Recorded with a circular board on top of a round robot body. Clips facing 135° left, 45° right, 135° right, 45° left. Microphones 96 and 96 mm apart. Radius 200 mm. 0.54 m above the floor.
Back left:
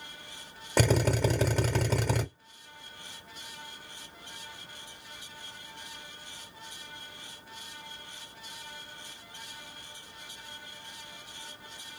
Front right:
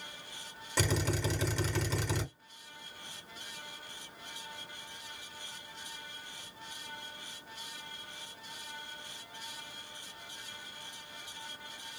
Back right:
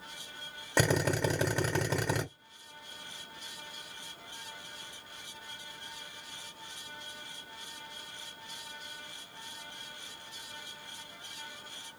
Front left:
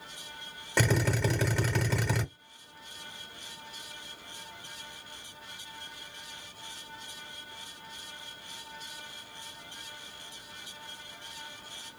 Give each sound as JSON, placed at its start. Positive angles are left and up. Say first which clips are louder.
{"t": 0.8, "sound": "a drill", "louder": "back left 7 dB, even", "azimuth_deg": 155, "distance_m": 2.0}